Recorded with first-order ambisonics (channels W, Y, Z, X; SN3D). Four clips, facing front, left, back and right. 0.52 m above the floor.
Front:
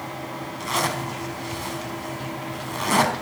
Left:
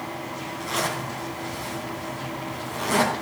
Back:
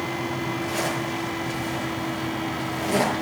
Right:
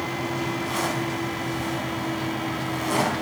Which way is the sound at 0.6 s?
5° left.